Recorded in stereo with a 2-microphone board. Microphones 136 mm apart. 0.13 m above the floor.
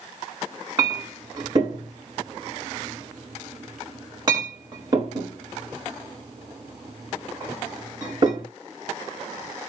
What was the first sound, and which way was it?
A clink, 30° right (ahead or behind).